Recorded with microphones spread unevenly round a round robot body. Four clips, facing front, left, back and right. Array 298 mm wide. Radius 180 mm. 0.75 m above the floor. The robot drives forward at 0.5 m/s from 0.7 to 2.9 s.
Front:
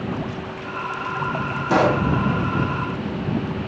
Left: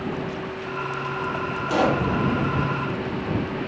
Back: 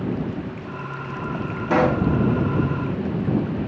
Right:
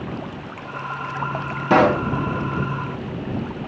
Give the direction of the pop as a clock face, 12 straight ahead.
3 o'clock.